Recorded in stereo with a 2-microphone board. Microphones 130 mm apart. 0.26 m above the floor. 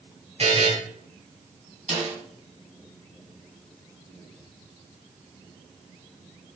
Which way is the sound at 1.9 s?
50° right (ahead or behind).